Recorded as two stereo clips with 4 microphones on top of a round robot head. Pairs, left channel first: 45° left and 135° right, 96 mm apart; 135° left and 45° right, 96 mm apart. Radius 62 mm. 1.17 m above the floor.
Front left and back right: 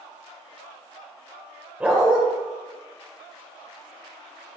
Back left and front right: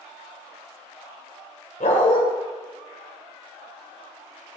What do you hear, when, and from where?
1.8 s a dog barking: 150° left, 1.4 m